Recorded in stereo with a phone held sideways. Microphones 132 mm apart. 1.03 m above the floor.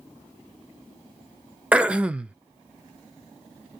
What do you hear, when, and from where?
1.7 s throat clearing: 10° right (ahead or behind), 0.6 m